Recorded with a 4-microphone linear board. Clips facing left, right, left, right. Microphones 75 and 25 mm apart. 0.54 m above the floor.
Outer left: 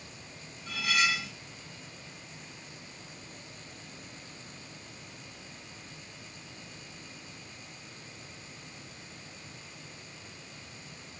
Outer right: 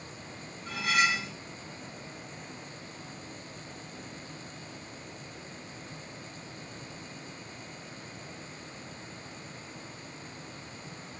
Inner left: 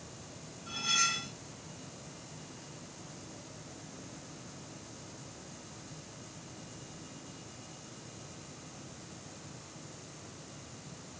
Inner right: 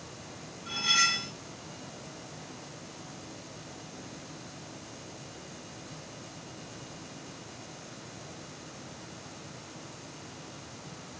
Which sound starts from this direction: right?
Cutlery clinking, at 0.7 s.